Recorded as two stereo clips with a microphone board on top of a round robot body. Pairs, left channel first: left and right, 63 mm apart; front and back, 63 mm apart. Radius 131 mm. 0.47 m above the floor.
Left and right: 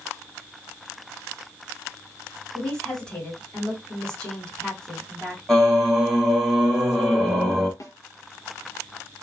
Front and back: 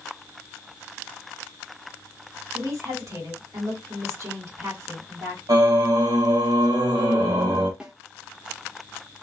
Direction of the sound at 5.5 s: 175° left.